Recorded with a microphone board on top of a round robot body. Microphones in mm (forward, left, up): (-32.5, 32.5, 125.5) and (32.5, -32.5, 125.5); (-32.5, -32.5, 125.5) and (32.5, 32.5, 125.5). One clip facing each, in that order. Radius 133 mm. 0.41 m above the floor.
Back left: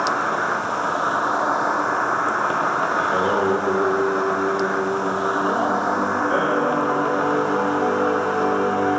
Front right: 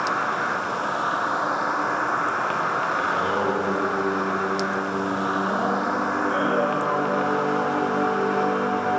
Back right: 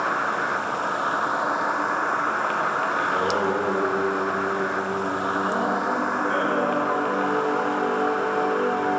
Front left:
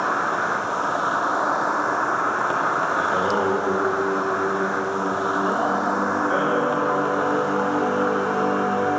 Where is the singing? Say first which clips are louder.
Back left 4 dB, front left 2 dB; 100° left, 1.7 m.